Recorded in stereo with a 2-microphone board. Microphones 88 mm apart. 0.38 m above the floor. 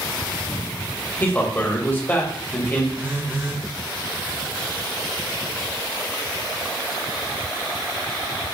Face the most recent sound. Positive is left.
turn(degrees=-20)  # may be behind; listen again after turning